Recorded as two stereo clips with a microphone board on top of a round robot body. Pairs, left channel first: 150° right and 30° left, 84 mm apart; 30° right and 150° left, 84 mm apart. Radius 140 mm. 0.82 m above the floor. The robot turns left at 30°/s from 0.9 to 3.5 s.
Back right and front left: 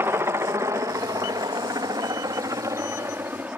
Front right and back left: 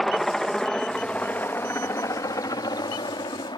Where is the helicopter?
55° left; by 3.6 s 40° right.